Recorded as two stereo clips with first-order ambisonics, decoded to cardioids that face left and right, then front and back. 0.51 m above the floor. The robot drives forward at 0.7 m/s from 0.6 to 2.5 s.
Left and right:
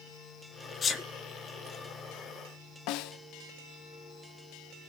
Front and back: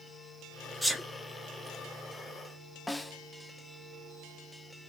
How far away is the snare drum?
About 0.5 m.